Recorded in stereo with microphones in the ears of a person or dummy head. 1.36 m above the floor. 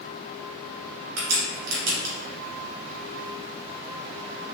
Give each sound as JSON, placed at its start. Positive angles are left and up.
{"t": 1.2, "sound": "a crack", "side_deg": -80, "distance_m": 1.8}